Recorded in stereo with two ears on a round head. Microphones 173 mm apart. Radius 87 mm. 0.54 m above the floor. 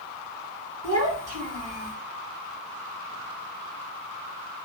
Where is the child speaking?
40° right (ahead or behind), 1.4 m.